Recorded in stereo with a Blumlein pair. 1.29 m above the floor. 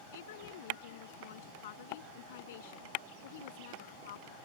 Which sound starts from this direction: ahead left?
A woman speaking, at 0.1 s.